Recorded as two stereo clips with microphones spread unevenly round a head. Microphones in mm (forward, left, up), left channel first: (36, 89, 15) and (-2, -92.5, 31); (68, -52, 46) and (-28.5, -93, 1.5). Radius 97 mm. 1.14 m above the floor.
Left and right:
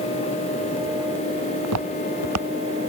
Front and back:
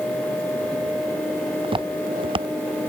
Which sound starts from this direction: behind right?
Footsteps, at 1.6 s.